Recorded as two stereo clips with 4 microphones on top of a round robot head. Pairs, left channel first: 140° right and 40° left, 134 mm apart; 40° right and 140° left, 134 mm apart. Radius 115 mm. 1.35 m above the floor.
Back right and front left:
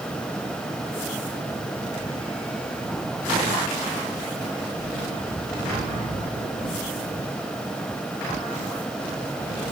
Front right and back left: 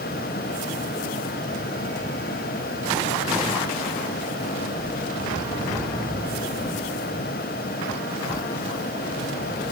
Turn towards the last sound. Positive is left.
No sound to turn to.